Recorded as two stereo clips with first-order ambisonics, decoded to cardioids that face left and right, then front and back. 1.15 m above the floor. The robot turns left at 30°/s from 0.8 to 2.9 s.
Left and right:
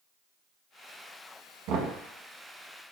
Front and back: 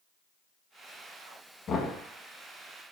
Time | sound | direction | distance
1.7 | knocking | 60° right | 1.0 m